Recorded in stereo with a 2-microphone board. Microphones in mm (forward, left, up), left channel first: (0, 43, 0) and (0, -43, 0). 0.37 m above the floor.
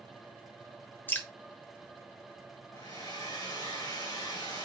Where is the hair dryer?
45° left (ahead or behind), 1.9 m.